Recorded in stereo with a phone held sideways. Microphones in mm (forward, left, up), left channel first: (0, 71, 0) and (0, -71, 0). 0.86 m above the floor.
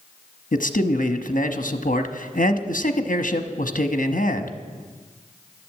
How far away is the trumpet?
I don't hear a trumpet.